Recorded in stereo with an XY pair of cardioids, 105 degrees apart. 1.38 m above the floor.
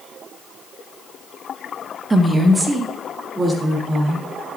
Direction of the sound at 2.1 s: 25° right.